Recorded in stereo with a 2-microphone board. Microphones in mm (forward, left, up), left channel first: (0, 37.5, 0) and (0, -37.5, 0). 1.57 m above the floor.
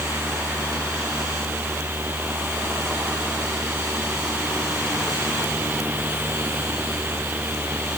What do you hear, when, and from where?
Only background noise.